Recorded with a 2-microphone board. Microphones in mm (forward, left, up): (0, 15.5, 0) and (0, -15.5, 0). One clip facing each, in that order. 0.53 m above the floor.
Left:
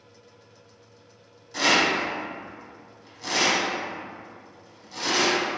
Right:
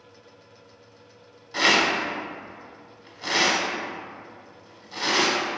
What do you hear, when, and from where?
1.5 s a rattle: 25° right (ahead or behind), 0.6 m